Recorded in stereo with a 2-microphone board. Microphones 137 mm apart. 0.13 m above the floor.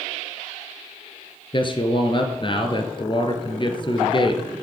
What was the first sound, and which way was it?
A man speaking, 35° left (ahead or behind).